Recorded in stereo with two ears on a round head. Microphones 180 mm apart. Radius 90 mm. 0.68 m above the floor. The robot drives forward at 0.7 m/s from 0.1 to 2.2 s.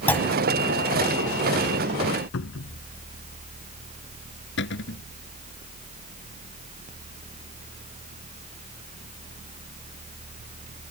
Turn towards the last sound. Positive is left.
turn(degrees=60)  # may be behind; listen again after turning